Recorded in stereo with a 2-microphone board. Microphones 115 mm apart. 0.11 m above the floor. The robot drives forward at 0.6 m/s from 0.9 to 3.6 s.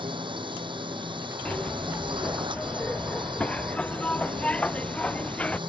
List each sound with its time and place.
0.0 s a drone: 45° right (ahead or behind)
1.4 s a zipper: 10° left (ahead or behind)